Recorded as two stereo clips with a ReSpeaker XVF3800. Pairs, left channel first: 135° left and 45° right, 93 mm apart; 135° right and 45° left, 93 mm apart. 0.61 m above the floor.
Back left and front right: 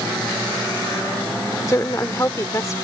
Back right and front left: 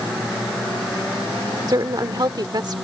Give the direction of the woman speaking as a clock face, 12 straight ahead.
9 o'clock.